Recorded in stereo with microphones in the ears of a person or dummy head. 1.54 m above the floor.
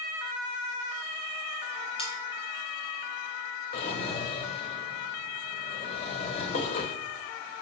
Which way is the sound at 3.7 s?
35° left (ahead or behind).